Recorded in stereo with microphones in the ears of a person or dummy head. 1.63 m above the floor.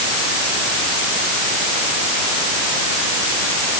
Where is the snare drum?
I don't hear a snare drum.